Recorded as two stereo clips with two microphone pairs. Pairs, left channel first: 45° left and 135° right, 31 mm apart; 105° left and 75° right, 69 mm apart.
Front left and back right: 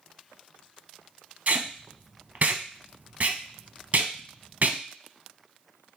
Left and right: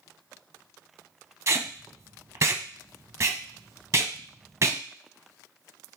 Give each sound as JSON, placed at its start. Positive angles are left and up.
{"t": 1.5, "sound": "tape being pulled", "azimuth_deg": -115, "distance_m": 0.6}